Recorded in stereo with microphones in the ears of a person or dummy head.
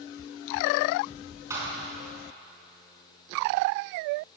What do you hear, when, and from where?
1.5 s a thud: 15° right (ahead or behind), 5 m